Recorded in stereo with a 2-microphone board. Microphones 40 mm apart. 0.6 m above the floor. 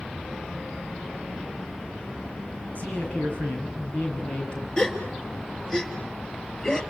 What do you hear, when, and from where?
2.8 s a man speaking: 50° left (ahead or behind), 7.5 m; by 4.7 s 25° left (ahead or behind), 8 m
4.8 s a gasp: 15° left (ahead or behind), 2.0 m